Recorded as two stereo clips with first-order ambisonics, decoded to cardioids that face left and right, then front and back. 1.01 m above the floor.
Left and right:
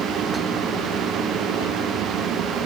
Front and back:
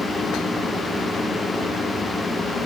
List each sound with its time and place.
Only background noise.